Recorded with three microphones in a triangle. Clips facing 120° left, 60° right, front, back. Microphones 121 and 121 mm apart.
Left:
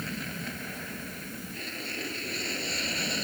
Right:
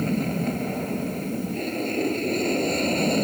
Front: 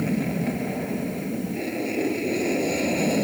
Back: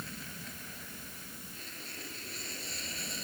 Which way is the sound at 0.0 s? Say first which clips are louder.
Right 13 dB, front 22 dB; 20° right.